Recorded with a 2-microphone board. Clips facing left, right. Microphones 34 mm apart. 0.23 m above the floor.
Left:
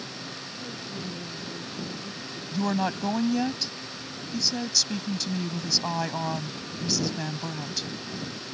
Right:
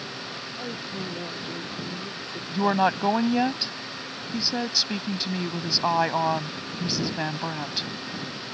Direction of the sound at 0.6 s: 50° right (ahead or behind).